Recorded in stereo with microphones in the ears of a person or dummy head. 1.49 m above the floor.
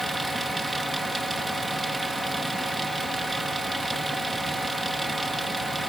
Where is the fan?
Centre (ahead or behind).